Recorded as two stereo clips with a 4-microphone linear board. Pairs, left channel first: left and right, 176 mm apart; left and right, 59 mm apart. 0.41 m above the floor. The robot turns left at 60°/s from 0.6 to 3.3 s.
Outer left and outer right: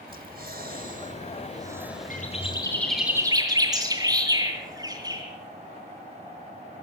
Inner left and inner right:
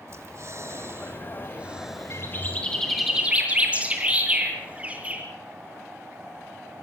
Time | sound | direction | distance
0.1 | breathing | 90° right | 1.6 m
2.1 | a bird | 50° left | 7.5 m